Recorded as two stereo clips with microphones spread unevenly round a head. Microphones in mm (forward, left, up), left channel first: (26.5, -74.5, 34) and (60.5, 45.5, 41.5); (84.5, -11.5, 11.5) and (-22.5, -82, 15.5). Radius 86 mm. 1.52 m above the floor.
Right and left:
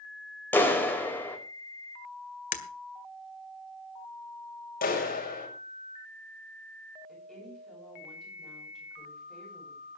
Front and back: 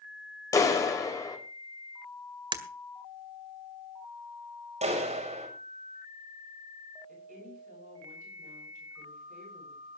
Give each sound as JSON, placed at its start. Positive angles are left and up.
{"t": 0.5, "sound": "a clap", "azimuth_deg": -30, "distance_m": 5.0}
{"t": 2.5, "sound": "breaking glass", "azimuth_deg": -105, "distance_m": 1.9}
{"t": 4.8, "sound": "a clap", "azimuth_deg": -115, "distance_m": 6.0}
{"t": 7.1, "sound": "a woman speaking", "azimuth_deg": 165, "distance_m": 9.5}